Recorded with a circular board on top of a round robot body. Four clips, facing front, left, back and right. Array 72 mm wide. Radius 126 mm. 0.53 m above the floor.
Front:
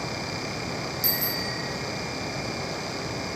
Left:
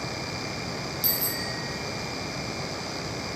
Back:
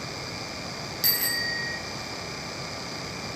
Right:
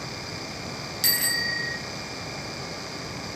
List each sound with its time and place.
1.0 s a bicycle bell: 110° right, 3.5 m